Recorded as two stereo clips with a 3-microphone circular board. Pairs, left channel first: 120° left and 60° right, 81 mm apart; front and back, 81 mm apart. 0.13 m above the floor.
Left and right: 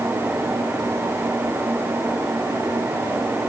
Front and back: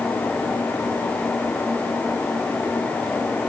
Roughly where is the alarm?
No alarm in this recording.